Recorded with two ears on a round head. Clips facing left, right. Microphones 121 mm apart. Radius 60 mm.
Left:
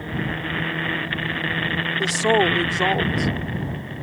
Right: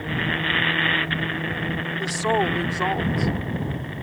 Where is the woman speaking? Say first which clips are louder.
Left 4 dB; 25° left (ahead or behind).